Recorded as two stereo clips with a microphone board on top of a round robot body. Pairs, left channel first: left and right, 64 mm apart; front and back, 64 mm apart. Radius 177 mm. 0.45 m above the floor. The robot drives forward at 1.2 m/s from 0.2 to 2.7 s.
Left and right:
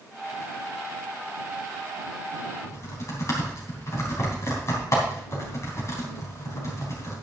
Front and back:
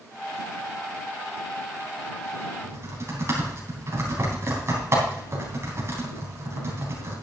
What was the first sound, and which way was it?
Typing on a keyboard, 130° left.